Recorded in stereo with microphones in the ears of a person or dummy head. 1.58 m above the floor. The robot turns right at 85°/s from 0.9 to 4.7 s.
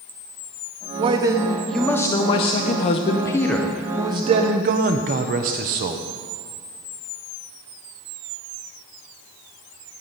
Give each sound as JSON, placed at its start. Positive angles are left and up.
{"t": 1.0, "sound": "a man speaking", "azimuth_deg": -50, "distance_m": 0.6}